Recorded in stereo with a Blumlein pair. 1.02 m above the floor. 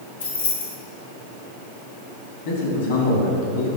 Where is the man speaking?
60° left, 2.0 m.